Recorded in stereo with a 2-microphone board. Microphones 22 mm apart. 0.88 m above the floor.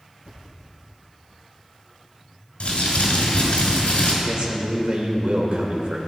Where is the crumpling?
60° left (ahead or behind), 3 m.